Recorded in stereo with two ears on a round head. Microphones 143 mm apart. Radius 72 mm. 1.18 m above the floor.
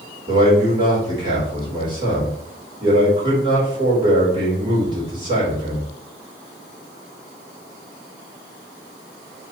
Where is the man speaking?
30° right (ahead or behind), 4.5 m.